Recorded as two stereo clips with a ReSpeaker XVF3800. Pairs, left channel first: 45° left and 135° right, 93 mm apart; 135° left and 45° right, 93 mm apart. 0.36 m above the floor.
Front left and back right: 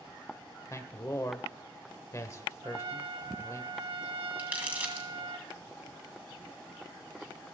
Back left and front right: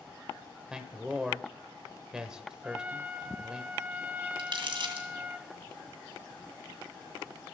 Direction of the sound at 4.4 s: 65° right.